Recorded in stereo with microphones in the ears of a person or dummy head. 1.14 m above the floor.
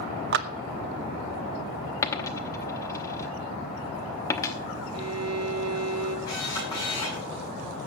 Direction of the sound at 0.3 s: 60° right (ahead or behind).